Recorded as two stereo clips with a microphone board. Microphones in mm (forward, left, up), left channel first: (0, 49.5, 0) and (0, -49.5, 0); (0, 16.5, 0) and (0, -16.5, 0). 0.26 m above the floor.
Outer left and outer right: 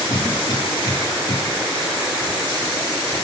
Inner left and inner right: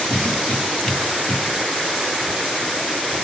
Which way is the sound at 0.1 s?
40° left (ahead or behind).